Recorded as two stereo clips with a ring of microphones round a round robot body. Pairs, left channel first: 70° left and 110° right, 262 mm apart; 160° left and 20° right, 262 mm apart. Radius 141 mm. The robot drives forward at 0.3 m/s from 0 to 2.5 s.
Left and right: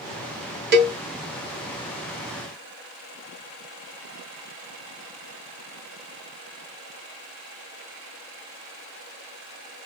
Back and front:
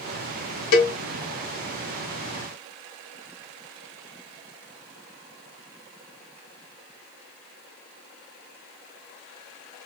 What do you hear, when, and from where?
0.7 s a cowbell: 165° right, 1.1 m